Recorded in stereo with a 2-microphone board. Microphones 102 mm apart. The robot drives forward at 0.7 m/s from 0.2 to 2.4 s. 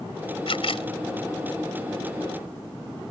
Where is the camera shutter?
65° left (ahead or behind); by 0.9 s 70° left (ahead or behind).